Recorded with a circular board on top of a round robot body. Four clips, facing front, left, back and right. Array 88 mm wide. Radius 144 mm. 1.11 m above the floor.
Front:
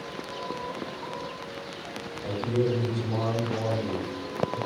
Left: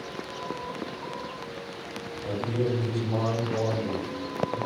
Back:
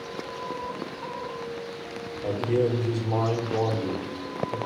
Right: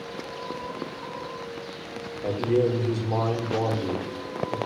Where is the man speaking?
120° right, 2 m.